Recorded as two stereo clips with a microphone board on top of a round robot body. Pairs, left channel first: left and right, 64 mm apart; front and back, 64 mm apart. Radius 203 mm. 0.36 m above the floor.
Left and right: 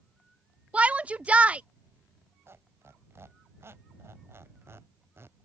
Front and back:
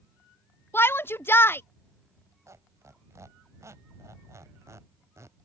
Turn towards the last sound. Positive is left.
turn(degrees=-140)